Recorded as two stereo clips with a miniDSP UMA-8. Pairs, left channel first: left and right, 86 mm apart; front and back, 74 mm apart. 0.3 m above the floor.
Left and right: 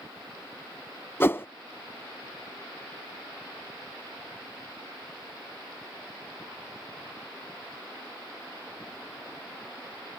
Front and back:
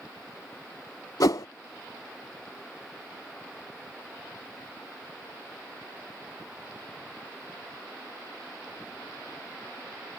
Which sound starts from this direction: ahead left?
A whoosh, at 1.2 s.